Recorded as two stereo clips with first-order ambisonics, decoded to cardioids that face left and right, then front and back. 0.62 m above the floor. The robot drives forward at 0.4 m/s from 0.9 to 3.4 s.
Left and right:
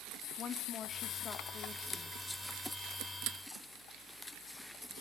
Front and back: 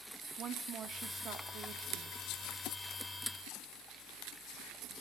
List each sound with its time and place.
0.4 s a woman speaking: 135° left, 0.7 m; by 2.2 s 155° left, 1.1 m